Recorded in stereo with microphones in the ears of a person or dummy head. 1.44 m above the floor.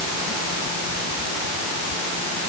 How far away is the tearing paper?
No tearing paper in this recording.